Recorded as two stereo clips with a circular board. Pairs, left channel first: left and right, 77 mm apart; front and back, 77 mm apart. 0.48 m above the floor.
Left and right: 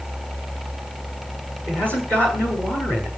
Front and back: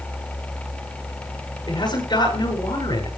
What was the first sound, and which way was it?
A man speaking, 25° left.